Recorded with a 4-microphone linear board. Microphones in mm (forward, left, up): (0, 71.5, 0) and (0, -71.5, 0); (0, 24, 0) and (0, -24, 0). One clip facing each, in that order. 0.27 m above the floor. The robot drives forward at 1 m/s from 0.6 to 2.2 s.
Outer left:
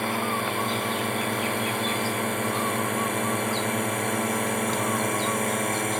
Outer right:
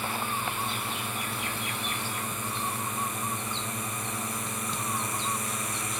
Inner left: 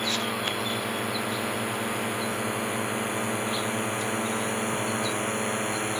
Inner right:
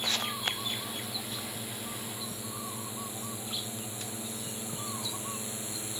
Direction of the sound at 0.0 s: 70° left (ahead or behind).